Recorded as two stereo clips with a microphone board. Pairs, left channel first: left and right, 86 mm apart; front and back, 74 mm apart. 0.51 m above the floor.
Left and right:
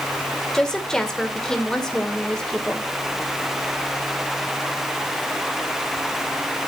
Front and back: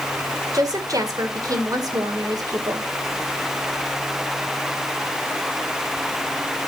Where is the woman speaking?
170° left, 2 m.